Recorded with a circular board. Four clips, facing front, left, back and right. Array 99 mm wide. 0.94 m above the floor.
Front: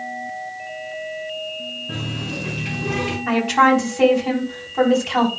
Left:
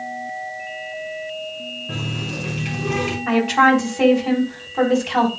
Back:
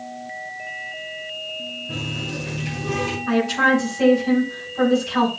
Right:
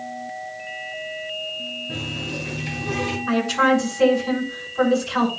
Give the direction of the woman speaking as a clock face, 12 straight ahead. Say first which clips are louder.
Left 4 dB, front 3 dB; 10 o'clock.